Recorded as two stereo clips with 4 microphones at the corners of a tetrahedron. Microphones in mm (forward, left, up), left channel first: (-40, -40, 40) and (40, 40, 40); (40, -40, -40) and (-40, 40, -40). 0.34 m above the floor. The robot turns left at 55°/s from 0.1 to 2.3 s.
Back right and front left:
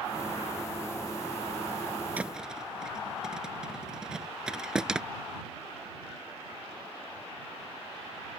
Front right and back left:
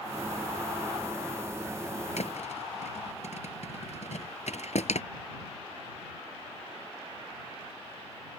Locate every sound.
2.2 s a thud: 30° right; by 5.0 s 40° right